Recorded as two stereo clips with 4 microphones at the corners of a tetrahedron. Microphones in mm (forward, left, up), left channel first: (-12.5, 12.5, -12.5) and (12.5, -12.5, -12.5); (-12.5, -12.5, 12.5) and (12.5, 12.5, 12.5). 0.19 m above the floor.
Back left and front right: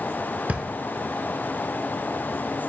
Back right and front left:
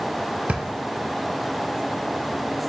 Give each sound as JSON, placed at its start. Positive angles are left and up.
{"t": 0.5, "sound": "a drawer", "azimuth_deg": -5, "distance_m": 0.7}